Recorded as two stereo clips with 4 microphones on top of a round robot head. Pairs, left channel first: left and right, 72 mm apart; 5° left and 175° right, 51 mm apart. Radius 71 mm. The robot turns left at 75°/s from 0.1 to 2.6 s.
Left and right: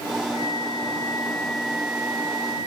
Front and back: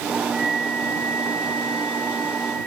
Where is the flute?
100° left; by 2.7 s 70° right.